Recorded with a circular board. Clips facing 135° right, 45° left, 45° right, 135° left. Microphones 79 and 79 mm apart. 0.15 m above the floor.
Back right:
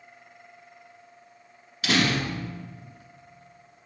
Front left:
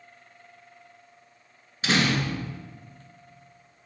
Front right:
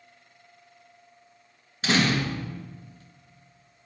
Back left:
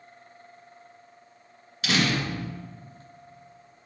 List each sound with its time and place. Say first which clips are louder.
1.8 s a door slam: even, front right 2 dB; straight ahead, 1.4 m